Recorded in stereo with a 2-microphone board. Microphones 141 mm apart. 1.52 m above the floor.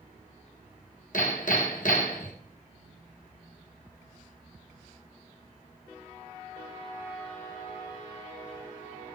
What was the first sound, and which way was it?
Hammering, 65° left (ahead or behind).